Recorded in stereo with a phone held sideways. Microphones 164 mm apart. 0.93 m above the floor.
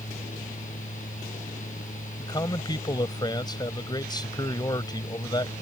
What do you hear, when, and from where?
0.0 s a fan: 50° left (ahead or behind)
2.2 s a man speaking: 25° left (ahead or behind)